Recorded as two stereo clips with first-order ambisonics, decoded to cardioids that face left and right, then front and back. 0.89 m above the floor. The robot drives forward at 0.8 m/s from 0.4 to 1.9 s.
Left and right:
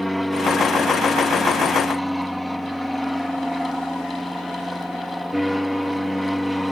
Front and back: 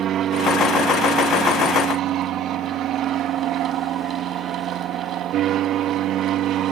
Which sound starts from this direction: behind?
An aircraft, at 0.0 s.